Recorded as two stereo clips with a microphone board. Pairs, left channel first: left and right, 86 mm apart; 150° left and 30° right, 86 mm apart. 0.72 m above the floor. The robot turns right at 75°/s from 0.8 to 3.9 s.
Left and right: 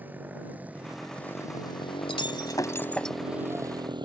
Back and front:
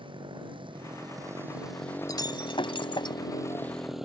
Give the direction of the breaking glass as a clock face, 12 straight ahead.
9 o'clock.